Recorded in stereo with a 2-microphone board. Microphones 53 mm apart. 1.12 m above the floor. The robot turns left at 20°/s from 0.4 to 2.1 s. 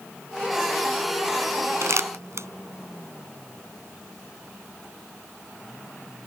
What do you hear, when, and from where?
1.8 s crumpling: 70° right (ahead or behind); by 2.5 s 60° right (ahead or behind)